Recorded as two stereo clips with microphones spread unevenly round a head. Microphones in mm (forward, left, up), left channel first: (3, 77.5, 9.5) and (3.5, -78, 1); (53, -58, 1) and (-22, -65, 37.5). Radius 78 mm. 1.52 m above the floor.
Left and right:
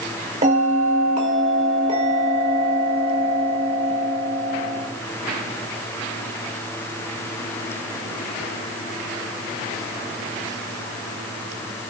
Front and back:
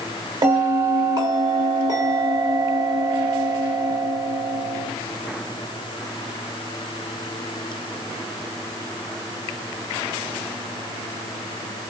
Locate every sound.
0.4 s a bell: 140° right, 2.5 m